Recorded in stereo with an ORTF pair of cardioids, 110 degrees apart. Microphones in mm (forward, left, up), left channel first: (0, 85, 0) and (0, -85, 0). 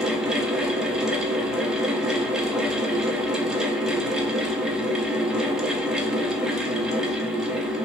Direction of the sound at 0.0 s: 5° right.